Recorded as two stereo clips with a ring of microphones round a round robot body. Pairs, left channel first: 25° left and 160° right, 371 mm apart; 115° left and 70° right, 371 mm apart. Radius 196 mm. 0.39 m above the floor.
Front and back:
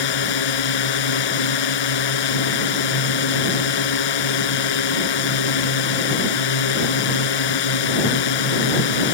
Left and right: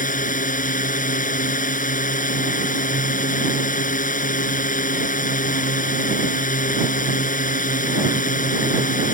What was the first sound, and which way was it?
A drone, 45° left.